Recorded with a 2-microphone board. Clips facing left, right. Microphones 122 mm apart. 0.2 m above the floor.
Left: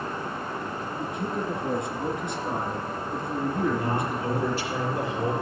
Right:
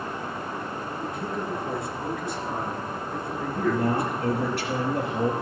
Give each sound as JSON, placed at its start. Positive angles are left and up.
{"t": 1.0, "sound": "a man speaking", "side_deg": 20, "distance_m": 2.5}
{"t": 3.5, "sound": "a man speaking", "side_deg": -70, "distance_m": 2.5}